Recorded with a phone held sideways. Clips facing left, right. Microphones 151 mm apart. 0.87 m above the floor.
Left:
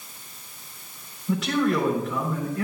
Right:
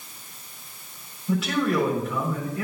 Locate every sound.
1.3 s a man speaking: 5° right (ahead or behind), 3.5 m